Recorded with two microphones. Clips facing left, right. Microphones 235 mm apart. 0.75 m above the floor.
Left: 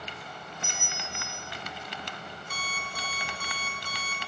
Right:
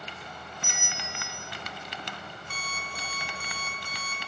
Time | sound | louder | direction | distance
0.6 | a bell | even | 25° left (ahead or behind) | 1.3 m
2.5 | an alarm clock | left 1 dB | 5° left (ahead or behind) | 1.3 m